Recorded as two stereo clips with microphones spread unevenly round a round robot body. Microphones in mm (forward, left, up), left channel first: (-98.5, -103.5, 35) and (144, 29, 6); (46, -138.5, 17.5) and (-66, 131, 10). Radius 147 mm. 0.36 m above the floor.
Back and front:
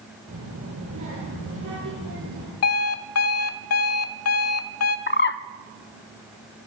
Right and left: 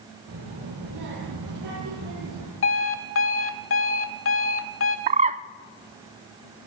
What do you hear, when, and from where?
0.3 s a child speaking: 75° left, 9.5 m; by 2.5 s 85° left, 10 m
2.6 s an alarm clock: 115° right, 1.3 m
5.1 s a bird: 165° left, 0.6 m